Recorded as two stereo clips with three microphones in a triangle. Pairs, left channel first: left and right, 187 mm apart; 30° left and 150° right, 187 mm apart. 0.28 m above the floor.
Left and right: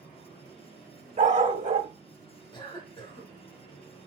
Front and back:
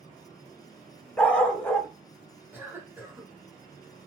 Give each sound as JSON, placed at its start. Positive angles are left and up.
{"t": 1.2, "sound": "a dog barking", "azimuth_deg": -50, "distance_m": 0.7}
{"t": 2.5, "sound": "a cough", "azimuth_deg": 140, "distance_m": 1.3}